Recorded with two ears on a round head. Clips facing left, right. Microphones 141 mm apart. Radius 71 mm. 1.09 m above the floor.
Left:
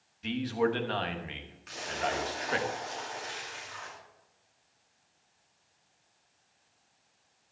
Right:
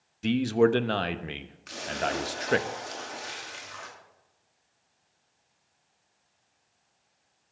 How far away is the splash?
About 2.5 m.